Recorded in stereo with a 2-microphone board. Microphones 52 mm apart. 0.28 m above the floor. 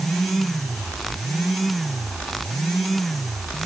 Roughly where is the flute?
I don't hear a flute.